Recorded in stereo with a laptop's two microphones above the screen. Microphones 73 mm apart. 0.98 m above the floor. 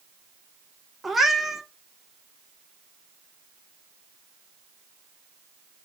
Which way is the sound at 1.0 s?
Centre (ahead or behind).